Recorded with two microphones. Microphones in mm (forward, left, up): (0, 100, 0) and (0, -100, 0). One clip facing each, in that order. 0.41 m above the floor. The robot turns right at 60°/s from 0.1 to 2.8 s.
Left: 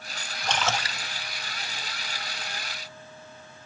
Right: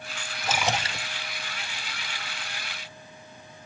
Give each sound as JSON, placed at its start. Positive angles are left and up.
{"t": 0.4, "sound": "a splash", "azimuth_deg": 180, "distance_m": 0.7}